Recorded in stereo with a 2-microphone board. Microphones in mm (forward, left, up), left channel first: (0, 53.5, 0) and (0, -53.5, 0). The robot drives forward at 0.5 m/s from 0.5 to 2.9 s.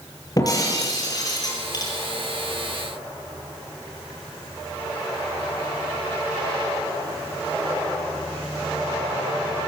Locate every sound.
0.4 s breaking glass: 35° left (ahead or behind), 7.5 m; by 1.9 s 40° left (ahead or behind), 6.5 m